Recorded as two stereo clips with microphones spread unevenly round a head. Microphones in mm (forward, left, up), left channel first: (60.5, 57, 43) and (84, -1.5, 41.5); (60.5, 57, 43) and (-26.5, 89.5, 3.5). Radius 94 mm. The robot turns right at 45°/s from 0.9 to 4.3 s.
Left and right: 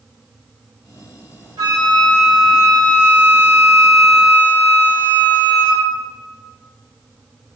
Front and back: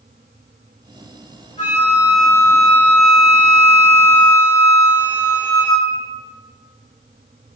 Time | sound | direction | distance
1.6 | a flute | 80° right | 0.9 m